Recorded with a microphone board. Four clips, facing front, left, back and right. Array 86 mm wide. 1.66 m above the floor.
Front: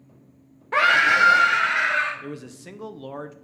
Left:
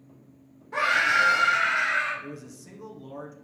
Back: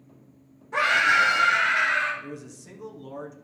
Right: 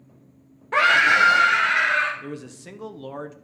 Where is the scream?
40° right, 0.8 m; by 2.1 s 45° right, 2 m.